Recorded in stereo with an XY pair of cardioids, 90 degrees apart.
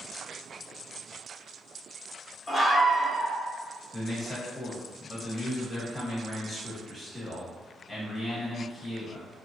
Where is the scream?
Straight ahead, 1.8 m.